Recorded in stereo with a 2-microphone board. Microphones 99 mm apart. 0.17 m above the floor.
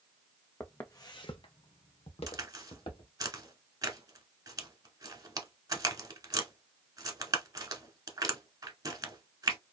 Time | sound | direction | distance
0.6 | footsteps | 15° left (ahead or behind) | 0.6 m
2.3 | a crack | 40° right (ahead or behind) | 0.8 m